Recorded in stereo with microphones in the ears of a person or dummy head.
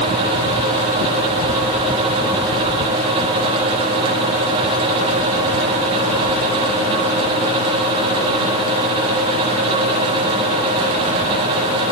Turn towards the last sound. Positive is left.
No sound to turn to.